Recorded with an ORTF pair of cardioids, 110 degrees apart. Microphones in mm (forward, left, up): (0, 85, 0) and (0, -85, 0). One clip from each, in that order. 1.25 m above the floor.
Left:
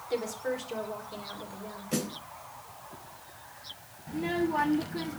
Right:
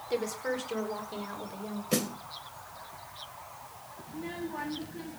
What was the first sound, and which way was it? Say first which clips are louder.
A woman speaking: even; 15° right.